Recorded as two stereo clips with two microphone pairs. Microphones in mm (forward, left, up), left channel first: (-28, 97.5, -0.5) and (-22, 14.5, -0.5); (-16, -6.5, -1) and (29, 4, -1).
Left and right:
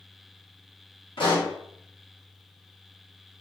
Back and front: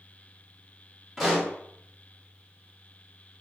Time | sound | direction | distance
1.2 | a pop | 105° left | 1.1 m